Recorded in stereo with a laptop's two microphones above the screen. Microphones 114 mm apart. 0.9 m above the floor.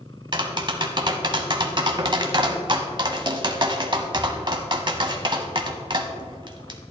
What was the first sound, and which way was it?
Tapping, 45° right (ahead or behind).